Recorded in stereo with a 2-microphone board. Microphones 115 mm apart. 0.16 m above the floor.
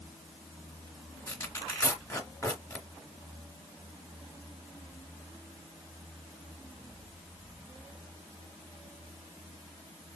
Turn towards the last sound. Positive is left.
turn(degrees=25)  # may be behind; listen again after turning